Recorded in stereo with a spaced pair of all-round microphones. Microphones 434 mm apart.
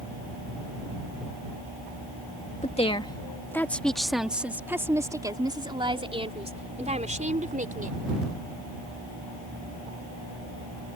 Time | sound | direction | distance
2.6 | a woman speaking | 15° left (ahead or behind) | ?